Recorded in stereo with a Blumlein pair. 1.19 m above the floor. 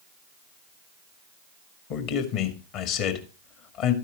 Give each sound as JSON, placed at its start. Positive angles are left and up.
{"t": 1.9, "sound": "a man speaking", "azimuth_deg": 40, "distance_m": 2.0}